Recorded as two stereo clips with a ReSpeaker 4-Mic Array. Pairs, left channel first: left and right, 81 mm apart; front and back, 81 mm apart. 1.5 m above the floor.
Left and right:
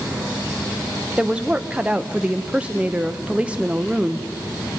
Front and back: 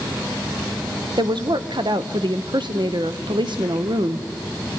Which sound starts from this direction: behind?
A woman speaking, at 1.2 s.